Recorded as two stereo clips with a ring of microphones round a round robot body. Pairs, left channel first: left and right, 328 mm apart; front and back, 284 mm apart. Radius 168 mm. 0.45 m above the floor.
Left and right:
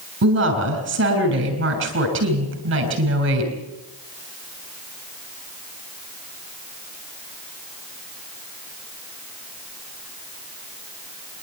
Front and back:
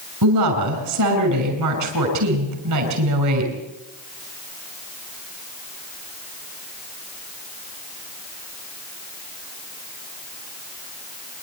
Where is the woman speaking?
145° right, 6 m.